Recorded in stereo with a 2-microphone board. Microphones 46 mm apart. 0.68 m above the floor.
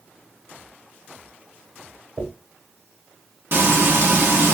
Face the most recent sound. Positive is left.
turn(degrees=-50)  # may be behind; listen again after turning